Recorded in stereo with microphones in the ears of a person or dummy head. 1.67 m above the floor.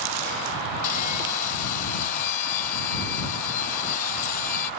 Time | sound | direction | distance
0.8 | sawing | 50° left (ahead or behind) | ?